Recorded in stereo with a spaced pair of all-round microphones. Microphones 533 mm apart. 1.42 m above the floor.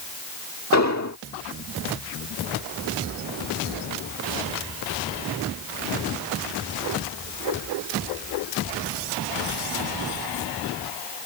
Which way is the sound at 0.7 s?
30° left (ahead or behind).